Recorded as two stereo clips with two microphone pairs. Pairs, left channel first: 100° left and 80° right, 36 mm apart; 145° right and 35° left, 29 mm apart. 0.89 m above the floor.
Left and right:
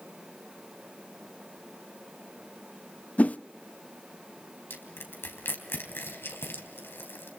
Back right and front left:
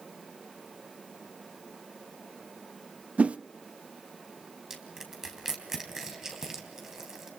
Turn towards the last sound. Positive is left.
turn(degrees=110)